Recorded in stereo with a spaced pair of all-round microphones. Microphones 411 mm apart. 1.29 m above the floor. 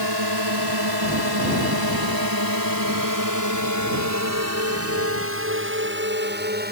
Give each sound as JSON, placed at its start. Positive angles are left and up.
{"t": 0.0, "sound": "a drone", "side_deg": -70}